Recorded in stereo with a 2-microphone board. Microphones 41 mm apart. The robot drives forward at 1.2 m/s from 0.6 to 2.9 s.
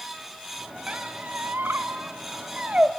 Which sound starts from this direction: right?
A squeak, at 0.9 s.